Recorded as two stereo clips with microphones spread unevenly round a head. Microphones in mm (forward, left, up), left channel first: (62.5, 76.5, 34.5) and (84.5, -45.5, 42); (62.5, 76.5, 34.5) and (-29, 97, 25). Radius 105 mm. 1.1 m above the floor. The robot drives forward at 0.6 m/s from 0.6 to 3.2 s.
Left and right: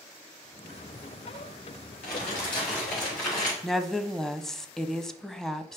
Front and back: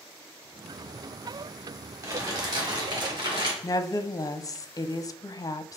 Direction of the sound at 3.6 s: 20° left.